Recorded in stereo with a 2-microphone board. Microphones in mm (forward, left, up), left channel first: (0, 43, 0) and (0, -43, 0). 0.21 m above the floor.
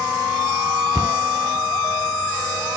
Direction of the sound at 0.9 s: 55° right (ahead or behind).